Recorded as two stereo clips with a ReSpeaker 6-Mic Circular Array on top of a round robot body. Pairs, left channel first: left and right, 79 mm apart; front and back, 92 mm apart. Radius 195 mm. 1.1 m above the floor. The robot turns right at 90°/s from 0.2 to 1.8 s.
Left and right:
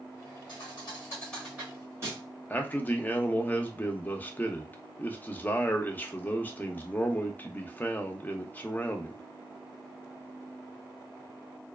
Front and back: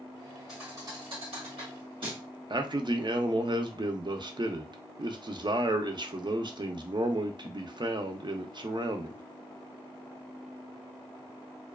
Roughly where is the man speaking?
Behind left.